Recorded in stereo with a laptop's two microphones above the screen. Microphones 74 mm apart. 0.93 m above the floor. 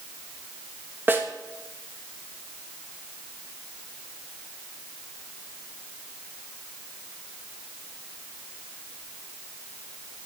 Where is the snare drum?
30° right (ahead or behind), 1.2 m.